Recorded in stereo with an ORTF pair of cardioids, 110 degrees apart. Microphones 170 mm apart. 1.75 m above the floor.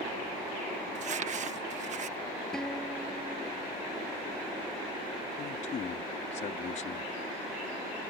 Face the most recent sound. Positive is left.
turn(degrees=45)